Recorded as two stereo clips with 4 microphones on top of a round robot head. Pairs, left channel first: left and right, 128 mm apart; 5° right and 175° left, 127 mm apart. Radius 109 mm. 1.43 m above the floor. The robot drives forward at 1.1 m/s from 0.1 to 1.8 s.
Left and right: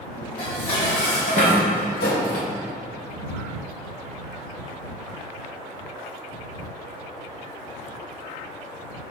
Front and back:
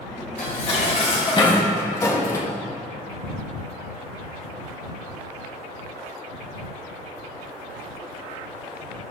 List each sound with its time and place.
0.4 s dishes clattering: 25° left, 2.5 m; by 2.5 s 60° left, 1.3 m